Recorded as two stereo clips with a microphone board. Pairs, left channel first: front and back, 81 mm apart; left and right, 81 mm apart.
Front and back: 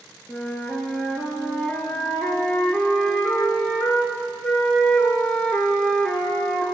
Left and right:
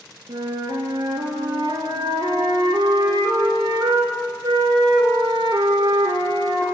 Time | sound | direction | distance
0.3 | a flute | 75° right | 1.1 m